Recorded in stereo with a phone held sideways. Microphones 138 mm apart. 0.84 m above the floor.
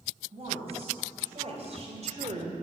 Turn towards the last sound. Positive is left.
turn(degrees=-55)  # may be behind; listen again after turning